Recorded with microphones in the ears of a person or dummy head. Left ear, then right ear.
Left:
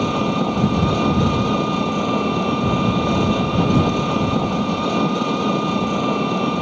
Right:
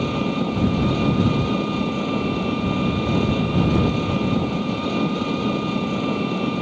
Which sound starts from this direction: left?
An engine running, at 0.0 s.